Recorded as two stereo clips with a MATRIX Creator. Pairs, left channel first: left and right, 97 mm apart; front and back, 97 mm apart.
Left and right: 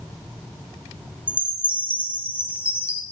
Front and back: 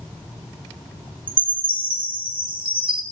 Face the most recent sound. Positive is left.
turn(degrees=-165)